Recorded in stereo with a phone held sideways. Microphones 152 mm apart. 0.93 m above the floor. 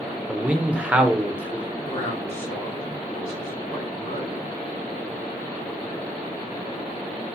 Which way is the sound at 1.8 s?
65° left (ahead or behind).